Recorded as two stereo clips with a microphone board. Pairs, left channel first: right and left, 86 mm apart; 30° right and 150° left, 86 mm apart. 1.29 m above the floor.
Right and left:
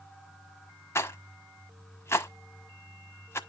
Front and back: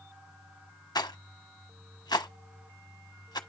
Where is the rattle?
40° right, 1.1 m.